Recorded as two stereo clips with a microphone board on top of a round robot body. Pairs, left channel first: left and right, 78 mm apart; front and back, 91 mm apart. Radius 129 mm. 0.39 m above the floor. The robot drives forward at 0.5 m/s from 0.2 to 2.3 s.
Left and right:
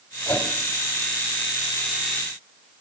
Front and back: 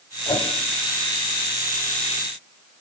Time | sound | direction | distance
0.3 | a whoosh | 25° left | 1.8 m